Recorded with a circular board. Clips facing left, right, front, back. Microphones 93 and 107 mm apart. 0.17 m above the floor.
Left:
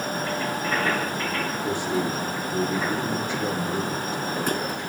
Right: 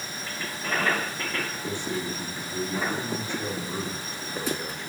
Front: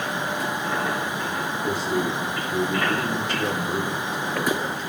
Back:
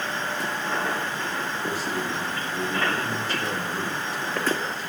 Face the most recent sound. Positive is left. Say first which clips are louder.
# left 8 dB, front 7 dB
turn(degrees=20)